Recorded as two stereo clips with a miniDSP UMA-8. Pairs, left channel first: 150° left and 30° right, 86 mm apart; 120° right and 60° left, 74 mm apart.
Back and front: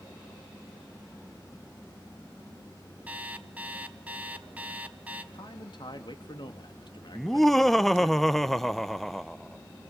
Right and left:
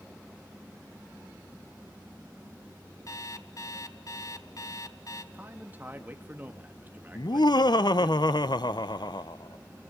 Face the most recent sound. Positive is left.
turn(degrees=-120)